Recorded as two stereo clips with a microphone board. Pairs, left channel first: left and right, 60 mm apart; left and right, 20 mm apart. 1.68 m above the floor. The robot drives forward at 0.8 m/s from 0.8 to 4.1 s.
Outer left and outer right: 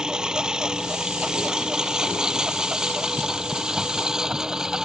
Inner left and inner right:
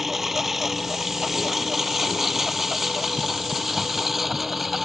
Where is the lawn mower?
10° right (ahead or behind).